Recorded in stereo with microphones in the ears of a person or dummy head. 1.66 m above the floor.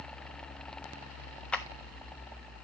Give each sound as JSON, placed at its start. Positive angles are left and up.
{"t": 1.5, "sound": "a clap", "side_deg": 5, "distance_m": 0.6}